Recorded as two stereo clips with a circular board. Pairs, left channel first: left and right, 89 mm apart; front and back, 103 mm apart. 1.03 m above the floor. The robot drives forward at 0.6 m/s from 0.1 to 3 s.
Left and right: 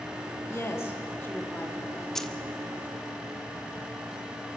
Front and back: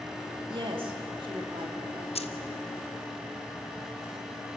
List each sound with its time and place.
0.5 s a woman speaking: 145° left, 2.5 m; by 2.2 s 155° left, 3 m
2.1 s keys jangling: 5° left, 0.7 m